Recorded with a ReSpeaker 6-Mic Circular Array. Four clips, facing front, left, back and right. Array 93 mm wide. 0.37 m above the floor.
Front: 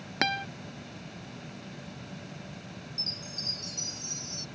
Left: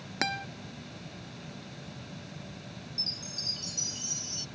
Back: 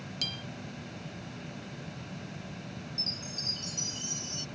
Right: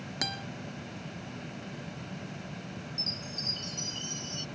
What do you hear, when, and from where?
0.2 s a guitar: 20° left
3.0 s a chime: 65° left